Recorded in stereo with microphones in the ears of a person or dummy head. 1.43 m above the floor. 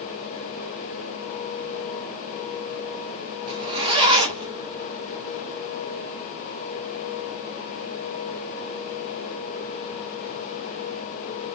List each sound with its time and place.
3.5 s a zipper: 30° right (ahead or behind), 1.0 m